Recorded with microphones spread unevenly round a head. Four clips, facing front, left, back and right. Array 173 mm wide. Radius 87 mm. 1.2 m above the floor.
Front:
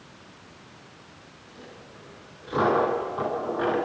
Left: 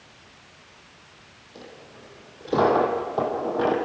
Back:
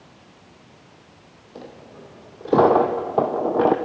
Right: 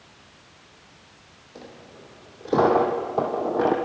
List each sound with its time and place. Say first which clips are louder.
1.6 s a dropped coin: right 1 dB, back 7 dB; 175° right, 3 m